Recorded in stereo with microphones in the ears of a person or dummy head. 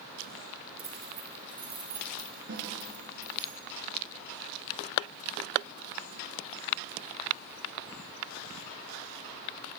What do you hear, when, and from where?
0.8 s keys jangling: 30° right (ahead or behind), 3.5 m; by 3.5 s 20° right (ahead or behind), 6 m
2.5 s a snare drum: 65° right (ahead or behind), 8 m